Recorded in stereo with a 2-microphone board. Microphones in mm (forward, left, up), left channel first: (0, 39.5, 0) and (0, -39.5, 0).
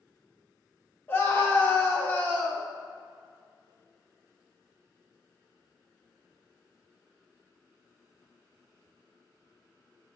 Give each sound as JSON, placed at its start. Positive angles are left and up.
{"t": 1.1, "sound": "a scream", "side_deg": 30, "distance_m": 1.6}